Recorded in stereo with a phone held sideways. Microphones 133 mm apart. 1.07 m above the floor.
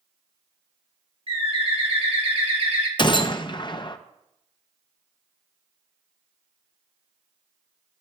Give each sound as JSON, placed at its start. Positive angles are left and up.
{"t": 1.3, "sound": "a bird", "side_deg": -50, "distance_m": 1.4}
{"t": 3.0, "sound": "a gunshot", "side_deg": 40, "distance_m": 0.6}